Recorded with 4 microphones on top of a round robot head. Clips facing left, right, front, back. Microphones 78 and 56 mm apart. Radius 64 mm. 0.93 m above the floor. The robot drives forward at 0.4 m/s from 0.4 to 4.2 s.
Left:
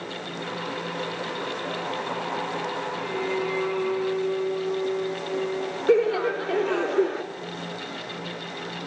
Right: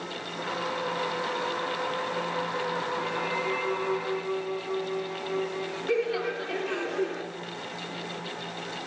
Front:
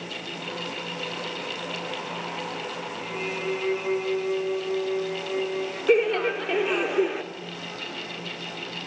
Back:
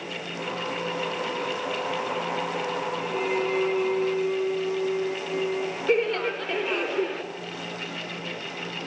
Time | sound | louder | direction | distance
3.0 | a violin | left 2 dB, back 4 dB | 145° left | 4 m
5.9 | laughter | left 8 dB, front 3 dB | 75° left | 0.6 m